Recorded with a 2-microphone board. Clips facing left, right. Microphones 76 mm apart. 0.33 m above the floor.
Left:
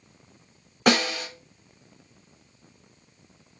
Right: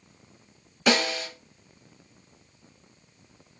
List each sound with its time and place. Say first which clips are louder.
0.9 s a snare drum: left 2 dB; 50° left (ahead or behind), 3.5 m